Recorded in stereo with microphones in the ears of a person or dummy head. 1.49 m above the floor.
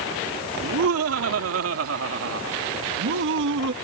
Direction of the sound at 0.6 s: 85° right.